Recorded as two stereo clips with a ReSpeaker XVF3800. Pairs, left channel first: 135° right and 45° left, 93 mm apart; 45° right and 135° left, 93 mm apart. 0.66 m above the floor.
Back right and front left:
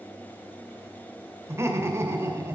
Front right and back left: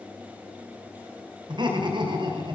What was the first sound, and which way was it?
Laughter, 105° left.